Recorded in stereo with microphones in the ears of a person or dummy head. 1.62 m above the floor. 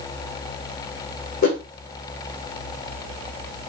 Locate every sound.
1.4 s a whoosh: 45° left (ahead or behind), 1.0 m